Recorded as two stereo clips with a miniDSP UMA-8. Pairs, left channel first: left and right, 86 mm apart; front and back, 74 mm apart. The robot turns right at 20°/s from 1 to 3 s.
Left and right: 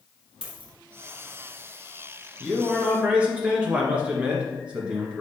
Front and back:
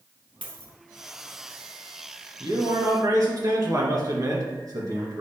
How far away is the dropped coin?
About 2 m.